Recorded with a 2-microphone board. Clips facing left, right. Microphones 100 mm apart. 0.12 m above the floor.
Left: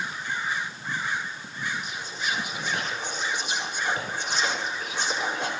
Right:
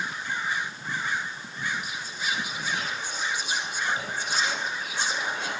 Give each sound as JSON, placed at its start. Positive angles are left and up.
{"t": 1.8, "sound": "whispering", "side_deg": 55, "distance_m": 5.0}